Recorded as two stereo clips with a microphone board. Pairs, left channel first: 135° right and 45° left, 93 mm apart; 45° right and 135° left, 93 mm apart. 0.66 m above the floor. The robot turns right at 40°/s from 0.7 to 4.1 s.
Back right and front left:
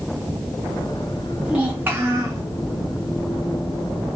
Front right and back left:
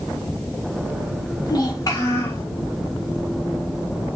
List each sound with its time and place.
1.4 s a child speaking: 30° right, 0.7 m; by 2.4 s 10° left, 0.7 m